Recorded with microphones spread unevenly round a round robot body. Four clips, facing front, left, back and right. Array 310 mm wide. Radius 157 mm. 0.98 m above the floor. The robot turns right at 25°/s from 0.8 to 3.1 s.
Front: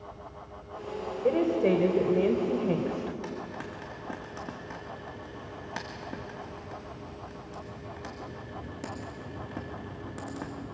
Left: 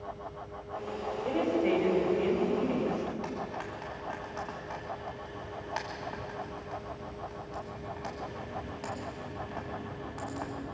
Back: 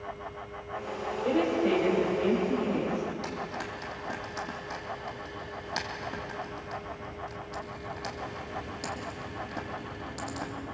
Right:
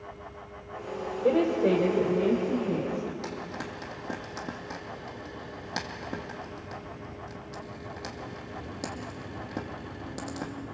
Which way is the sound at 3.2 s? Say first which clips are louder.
Even, back 2 dB; 75° right.